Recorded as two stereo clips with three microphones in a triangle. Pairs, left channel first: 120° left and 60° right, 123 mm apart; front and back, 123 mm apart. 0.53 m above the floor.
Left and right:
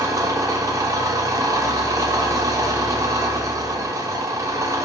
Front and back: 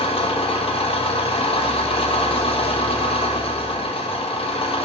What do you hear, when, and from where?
0.0 s an engine running: 5° right, 0.8 m